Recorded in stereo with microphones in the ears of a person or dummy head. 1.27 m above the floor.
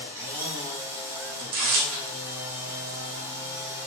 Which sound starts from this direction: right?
Tearing paper, at 1.4 s.